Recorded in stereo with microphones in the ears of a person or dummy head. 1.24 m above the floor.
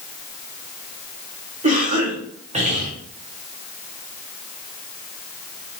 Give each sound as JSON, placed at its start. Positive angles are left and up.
{"t": 1.6, "sound": "a cough", "side_deg": -30, "distance_m": 1.1}